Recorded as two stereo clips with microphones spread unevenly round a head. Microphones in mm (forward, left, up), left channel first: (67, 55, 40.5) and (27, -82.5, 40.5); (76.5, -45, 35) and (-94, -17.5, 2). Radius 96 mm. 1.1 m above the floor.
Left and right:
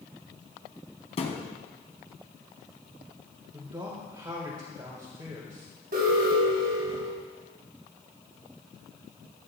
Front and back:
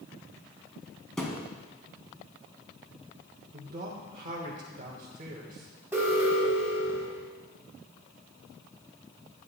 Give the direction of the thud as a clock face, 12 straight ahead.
10 o'clock.